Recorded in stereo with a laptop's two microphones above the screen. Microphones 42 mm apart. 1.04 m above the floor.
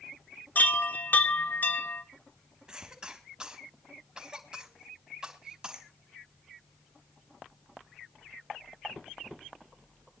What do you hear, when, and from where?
0.6 s a chime: 45° left (ahead or behind), 0.8 m
2.7 s a cough: 20° right (ahead or behind), 3 m